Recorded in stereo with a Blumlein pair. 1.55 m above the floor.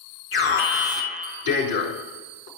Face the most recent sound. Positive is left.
turn(degrees=60)